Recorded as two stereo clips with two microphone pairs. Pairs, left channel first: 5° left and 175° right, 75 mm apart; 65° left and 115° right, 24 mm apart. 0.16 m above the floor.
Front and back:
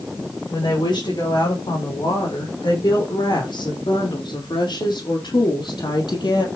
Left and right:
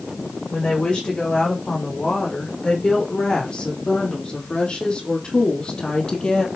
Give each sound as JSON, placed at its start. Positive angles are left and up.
{"t": 0.5, "sound": "a woman speaking", "azimuth_deg": 20, "distance_m": 9.0}